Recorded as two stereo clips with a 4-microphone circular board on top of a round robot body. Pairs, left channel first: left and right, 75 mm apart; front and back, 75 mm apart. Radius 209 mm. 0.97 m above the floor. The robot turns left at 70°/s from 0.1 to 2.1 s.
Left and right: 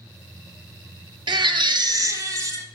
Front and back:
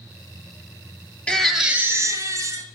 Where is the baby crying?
75° right, 1.3 m; by 2.6 s 135° right, 1.3 m.